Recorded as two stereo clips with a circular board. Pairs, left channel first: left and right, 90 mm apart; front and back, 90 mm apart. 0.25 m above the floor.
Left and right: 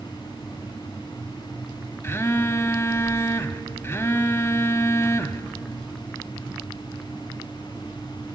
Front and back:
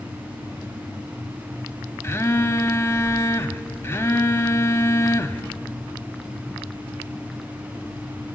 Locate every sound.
2.0 s a phone buzzing: 45° left, 0.7 m